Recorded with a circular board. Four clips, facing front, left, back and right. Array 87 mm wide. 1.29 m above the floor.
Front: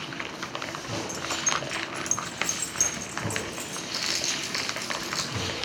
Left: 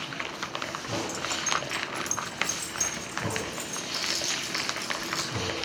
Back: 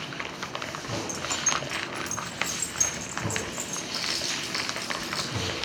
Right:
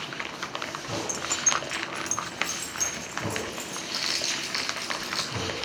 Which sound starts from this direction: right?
Keys jangling, at 1.1 s.